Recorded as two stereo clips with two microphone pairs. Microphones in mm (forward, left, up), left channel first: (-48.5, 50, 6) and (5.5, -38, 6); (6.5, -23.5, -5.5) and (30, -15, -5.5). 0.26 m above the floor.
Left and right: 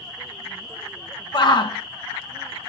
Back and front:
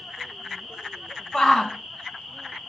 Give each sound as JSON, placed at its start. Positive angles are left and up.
{"t": 1.3, "sound": "a shout", "azimuth_deg": 140, "distance_m": 2.0}